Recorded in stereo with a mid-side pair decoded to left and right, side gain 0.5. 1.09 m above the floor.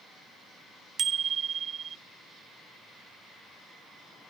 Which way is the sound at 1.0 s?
45° right.